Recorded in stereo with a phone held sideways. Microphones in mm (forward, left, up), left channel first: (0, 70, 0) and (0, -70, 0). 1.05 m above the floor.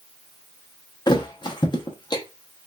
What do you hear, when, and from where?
1.1 s a thud: 35° left (ahead or behind), 0.6 m